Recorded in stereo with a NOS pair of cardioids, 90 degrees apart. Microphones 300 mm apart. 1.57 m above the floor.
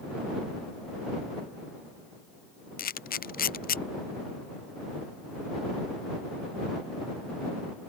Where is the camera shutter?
30° left.